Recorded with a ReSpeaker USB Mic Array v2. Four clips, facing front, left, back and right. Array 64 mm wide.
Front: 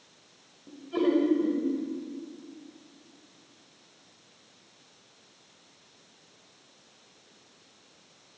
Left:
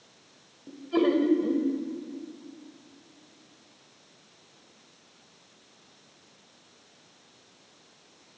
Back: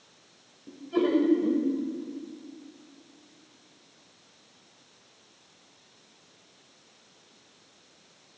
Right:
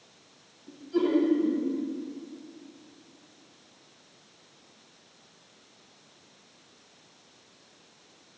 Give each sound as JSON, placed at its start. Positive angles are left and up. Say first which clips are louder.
{"t": 0.7, "sound": "laughter", "louder": "left 1 dB, back 1 dB", "azimuth_deg": 90, "distance_m": 1.7}